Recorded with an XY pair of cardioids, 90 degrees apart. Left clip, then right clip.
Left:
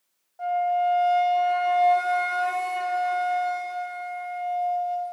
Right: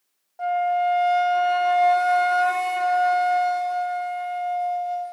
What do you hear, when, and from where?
0.4 s a flute: 35° right, 1.0 m